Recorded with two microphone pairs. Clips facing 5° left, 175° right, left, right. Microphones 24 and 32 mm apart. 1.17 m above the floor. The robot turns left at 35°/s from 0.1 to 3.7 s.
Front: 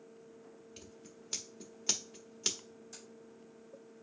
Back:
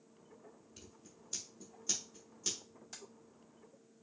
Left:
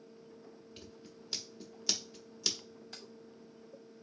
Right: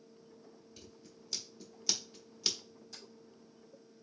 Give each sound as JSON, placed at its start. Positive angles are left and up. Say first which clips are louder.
{"t": 0.8, "sound": "scissors", "louder": "front 5 dB, left 3 dB", "azimuth_deg": 45, "distance_m": 1.2}
{"t": 2.9, "sound": "keys jangling", "louder": "back 3 dB, left 2 dB", "azimuth_deg": 140, "distance_m": 1.5}